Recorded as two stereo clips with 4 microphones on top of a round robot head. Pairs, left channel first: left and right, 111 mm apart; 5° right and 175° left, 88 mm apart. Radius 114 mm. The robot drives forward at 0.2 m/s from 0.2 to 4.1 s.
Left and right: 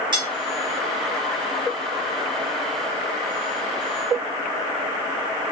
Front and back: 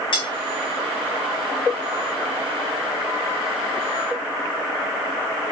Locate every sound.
0.1 s cutlery clinking: 40° right, 0.8 m